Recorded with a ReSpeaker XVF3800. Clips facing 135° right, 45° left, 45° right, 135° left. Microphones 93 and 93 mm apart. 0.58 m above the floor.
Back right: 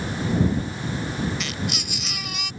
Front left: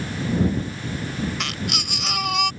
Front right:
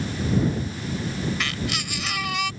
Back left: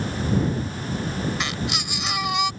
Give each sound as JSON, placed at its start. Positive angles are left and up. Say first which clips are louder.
{"t": 1.4, "sound": "a baby crying", "louder": "front left 1 dB, back left 1 dB", "azimuth_deg": 65}